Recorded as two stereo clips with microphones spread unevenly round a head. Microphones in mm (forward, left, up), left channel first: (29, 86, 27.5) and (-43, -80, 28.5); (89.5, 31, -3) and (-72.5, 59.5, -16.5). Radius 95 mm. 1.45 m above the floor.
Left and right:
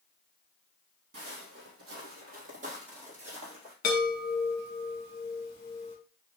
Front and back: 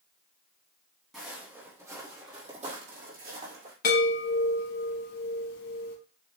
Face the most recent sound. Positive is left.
turn(degrees=15)